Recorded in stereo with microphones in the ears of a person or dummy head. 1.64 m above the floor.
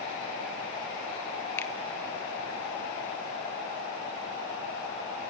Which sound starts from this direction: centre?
A finger snap, at 1.6 s.